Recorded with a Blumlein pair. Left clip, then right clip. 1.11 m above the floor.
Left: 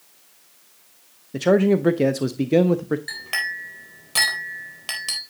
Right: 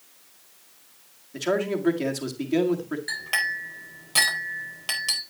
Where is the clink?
Straight ahead, 4 m.